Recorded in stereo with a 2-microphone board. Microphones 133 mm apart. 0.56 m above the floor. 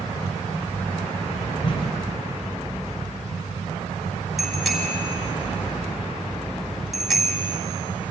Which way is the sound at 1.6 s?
45° left (ahead or behind).